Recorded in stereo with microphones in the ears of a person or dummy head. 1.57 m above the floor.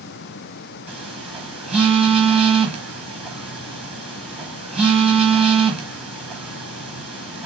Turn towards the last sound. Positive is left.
turn(degrees=-5)  # may be behind; listen again after turning